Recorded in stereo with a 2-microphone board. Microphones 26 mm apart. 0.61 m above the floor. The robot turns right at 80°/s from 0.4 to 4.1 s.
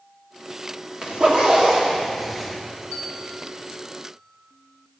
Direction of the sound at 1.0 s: 35° right (ahead or behind).